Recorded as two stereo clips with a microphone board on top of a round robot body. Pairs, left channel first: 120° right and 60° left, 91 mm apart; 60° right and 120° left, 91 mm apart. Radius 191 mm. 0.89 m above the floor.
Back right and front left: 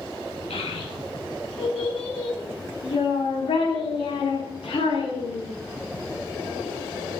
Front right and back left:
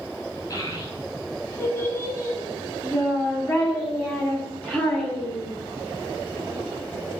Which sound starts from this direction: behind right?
A child speaking, at 0.5 s.